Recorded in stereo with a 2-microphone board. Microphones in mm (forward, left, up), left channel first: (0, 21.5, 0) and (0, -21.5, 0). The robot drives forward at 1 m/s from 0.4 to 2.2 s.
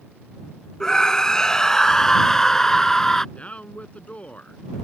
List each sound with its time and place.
0.8 s a scream: 15° left (ahead or behind); by 3.2 s 10° left (ahead or behind)
3.4 s a man speaking: 30° left (ahead or behind)